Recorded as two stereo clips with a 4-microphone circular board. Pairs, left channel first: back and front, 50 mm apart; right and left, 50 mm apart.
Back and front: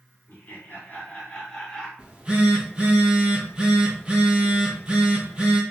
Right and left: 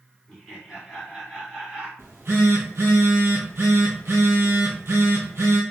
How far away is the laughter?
About 1.9 m.